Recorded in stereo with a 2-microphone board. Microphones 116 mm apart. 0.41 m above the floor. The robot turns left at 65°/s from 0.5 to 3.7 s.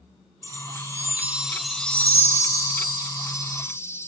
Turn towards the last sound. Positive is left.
turn(degrees=45)